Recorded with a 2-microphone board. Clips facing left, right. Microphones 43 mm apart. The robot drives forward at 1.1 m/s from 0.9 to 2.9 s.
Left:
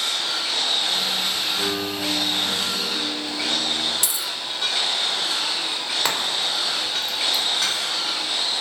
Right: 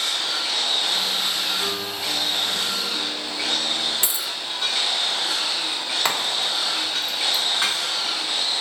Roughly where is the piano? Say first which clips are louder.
Left 2 dB; left.